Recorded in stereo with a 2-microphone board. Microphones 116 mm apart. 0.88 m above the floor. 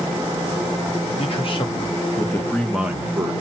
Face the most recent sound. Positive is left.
turn(degrees=-25)  # may be behind; listen again after turning